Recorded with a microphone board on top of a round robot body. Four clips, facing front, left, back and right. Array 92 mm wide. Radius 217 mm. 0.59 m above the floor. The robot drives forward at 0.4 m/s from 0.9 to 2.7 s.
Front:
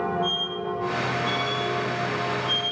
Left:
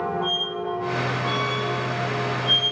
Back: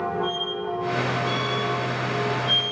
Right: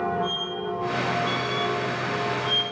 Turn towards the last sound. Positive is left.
turn(degrees=105)